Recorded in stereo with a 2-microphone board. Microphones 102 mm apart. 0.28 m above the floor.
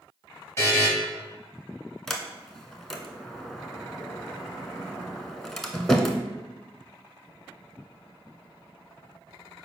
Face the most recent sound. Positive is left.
turn(degrees=0)  # may be behind; listen again after turning